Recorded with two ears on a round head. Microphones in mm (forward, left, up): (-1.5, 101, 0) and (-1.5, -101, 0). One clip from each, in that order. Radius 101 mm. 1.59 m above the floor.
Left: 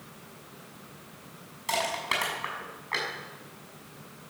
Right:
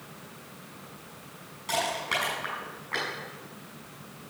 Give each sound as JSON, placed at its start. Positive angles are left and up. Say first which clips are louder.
{"t": 1.7, "sound": "crushing", "louder": "even", "side_deg": 40, "distance_m": 6.5}